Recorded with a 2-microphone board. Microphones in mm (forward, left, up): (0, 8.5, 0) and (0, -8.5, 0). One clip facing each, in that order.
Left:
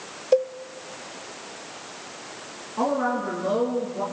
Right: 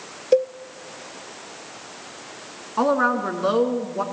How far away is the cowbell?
About 0.6 m.